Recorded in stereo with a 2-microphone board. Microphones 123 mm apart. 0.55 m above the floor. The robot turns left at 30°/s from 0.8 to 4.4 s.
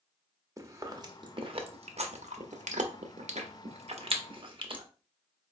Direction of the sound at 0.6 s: 25° right (ahead or behind).